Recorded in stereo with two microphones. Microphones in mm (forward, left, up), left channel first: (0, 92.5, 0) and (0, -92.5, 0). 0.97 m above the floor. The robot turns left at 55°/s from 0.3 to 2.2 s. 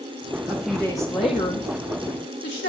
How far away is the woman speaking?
About 1.8 m.